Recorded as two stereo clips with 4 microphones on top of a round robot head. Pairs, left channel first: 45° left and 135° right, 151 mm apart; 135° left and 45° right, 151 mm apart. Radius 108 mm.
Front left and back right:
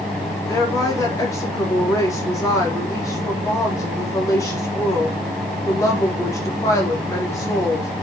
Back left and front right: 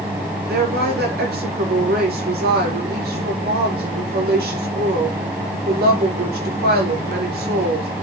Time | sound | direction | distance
0.5 | a woman speaking | 25° right | 4 m